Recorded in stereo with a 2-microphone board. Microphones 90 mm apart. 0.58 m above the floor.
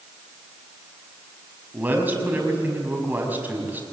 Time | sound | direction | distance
1.7 | a man speaking | 20° right (ahead or behind) | 5.5 m